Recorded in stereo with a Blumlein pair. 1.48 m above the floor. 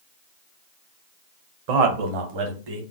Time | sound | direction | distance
1.7 | a man speaking | 45° right | 0.8 m